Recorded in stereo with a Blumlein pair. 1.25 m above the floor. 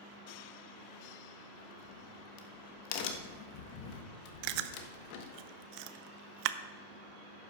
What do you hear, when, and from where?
1.6 s a crack: 45° left, 1.1 m
4.4 s chewing: 45° right, 0.5 m